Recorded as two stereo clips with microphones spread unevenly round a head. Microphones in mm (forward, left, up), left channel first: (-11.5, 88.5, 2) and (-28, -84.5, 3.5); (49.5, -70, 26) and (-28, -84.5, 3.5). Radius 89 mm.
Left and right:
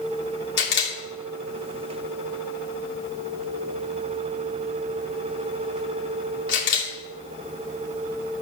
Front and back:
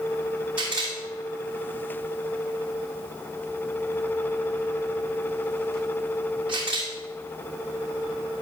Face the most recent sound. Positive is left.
turn(degrees=110)